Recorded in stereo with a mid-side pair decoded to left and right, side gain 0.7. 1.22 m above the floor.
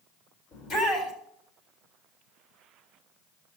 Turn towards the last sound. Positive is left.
turn(degrees=45)